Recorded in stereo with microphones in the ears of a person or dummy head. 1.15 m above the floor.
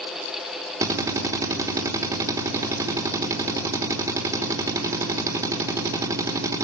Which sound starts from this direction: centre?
A drill, at 0.8 s.